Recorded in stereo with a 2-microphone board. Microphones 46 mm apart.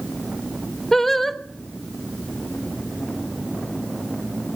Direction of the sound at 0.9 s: 5° left (ahead or behind).